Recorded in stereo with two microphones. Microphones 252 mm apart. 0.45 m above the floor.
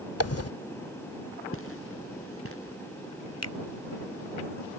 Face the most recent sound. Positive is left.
turn(degrees=65)  # may be behind; listen again after turning